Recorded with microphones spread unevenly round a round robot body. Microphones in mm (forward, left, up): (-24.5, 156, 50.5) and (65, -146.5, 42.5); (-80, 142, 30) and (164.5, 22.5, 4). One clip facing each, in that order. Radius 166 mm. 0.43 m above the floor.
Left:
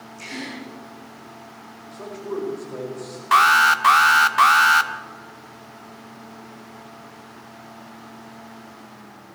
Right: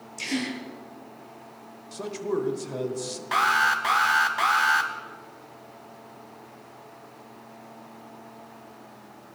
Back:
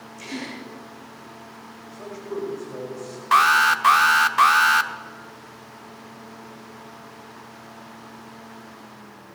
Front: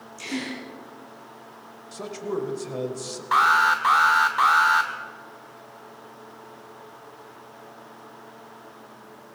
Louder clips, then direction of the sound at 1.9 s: Right 2 dB, front 3 dB; 50° right.